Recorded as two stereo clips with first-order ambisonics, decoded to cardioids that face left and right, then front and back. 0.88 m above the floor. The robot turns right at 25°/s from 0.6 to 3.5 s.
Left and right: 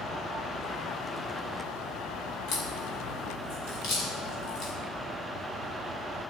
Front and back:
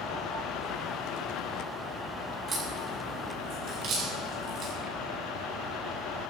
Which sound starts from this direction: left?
A crack, at 2.5 s.